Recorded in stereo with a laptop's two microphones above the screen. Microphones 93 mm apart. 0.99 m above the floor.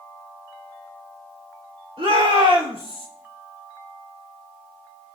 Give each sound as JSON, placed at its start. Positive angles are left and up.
{"t": 2.0, "sound": "a shout", "side_deg": -75, "distance_m": 3.5}